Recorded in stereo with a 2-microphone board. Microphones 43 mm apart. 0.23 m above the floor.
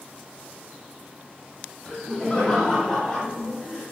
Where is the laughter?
15° left (ahead or behind), 1.3 m; by 3.8 s 5° left (ahead or behind), 2 m.